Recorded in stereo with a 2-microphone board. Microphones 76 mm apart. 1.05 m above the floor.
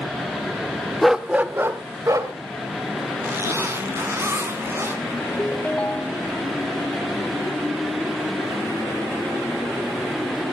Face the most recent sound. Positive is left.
turn(degrees=20)  # may be behind; listen again after turning